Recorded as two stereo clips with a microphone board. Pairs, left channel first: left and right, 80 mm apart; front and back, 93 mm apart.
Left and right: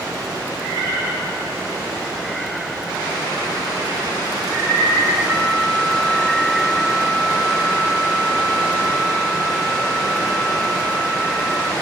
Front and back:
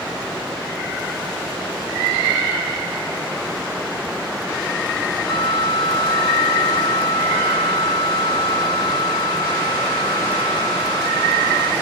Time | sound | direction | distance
5.3 | a flute | 5° left | ?